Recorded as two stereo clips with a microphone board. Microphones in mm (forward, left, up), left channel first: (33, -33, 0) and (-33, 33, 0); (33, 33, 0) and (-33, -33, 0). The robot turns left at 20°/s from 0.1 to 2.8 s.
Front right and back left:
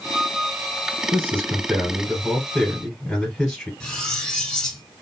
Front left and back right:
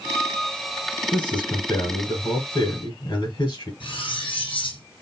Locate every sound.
1.1 s a man speaking: 75° left, 1.9 m; by 3.7 s 40° left, 1.9 m
3.8 s cutlery clinking: 35° left, 1.7 m